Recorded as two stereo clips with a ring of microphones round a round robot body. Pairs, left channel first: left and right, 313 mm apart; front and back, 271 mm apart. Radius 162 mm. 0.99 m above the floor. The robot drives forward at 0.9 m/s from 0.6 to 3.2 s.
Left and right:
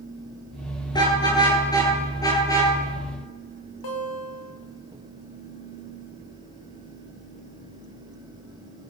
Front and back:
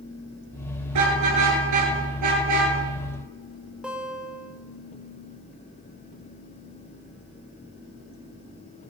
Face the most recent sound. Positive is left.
turn(degrees=95)